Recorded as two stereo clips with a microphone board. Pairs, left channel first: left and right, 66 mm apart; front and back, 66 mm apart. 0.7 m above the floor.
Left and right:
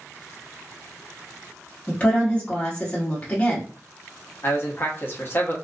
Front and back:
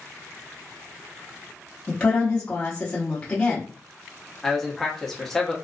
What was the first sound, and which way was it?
A woman speaking, 50° left.